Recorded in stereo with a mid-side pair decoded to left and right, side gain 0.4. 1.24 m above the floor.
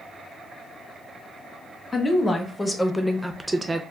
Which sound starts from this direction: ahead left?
A woman speaking, at 1.9 s.